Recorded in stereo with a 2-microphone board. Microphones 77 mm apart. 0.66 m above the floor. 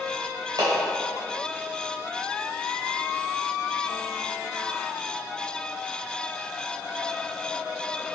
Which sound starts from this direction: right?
A clap, at 0.6 s.